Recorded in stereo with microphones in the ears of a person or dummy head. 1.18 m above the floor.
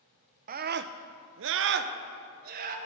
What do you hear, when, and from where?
0.5 s a scream: 35° right (ahead or behind), 0.5 m; by 2.8 s 45° right (ahead or behind), 1.1 m